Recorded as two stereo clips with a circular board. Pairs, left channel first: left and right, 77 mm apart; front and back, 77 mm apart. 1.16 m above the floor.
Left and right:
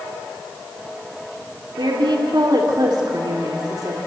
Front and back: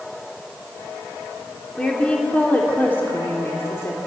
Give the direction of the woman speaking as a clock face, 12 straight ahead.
3 o'clock.